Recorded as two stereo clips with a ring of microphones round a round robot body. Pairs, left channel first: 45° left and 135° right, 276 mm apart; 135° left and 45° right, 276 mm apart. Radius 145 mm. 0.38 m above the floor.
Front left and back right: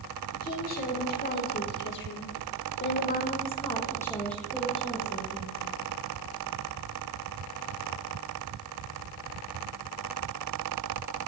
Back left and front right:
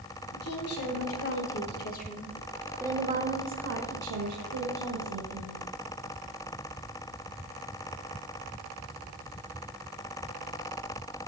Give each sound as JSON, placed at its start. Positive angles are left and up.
{"t": 0.3, "sound": "a woman speaking", "azimuth_deg": 105, "distance_m": 3.5}